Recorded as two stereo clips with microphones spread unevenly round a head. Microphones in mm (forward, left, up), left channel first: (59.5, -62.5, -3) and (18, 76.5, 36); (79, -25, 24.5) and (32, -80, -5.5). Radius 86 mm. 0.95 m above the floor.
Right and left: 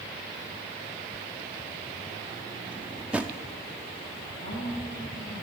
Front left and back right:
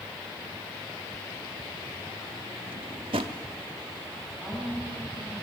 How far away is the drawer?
About 0.6 m.